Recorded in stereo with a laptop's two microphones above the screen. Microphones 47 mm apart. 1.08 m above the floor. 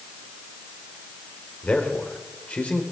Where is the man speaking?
30° left (ahead or behind), 3.5 m.